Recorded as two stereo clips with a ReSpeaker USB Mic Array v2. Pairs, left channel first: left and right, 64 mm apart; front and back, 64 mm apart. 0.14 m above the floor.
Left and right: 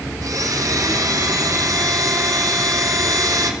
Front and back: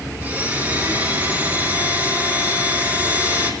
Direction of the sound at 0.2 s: 120° right.